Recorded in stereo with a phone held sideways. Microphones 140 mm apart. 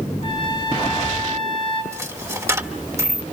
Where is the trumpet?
40° left (ahead or behind), 8 m.